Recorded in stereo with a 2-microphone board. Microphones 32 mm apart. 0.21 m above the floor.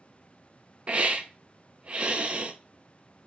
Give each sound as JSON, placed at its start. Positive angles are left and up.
{"t": 0.9, "sound": "a hiss", "side_deg": -40, "distance_m": 0.5}